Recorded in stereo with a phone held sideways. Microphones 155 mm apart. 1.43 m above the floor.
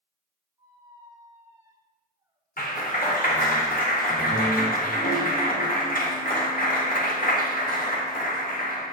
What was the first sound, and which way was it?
A squeak, 25° right (ahead or behind).